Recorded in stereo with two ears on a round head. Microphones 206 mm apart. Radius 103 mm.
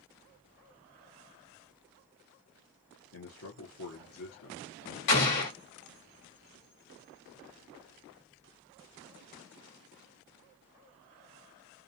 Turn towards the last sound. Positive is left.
turn(degrees=75)  # may be behind; listen again after turning